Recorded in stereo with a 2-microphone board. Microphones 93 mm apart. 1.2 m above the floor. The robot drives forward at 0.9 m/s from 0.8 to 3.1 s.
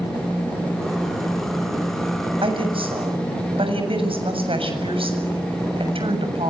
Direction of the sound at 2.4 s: 75° right (ahead or behind).